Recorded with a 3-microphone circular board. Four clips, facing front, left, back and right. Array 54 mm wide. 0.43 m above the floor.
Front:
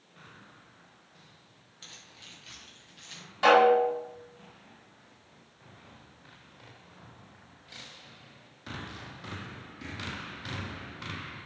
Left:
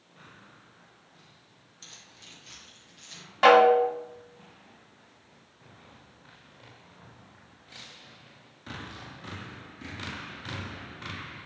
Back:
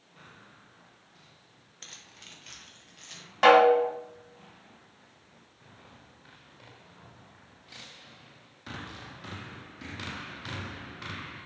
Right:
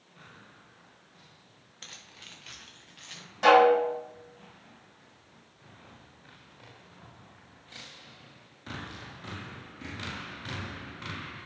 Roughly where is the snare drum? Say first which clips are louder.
Left 2 dB, back 2 dB; behind left.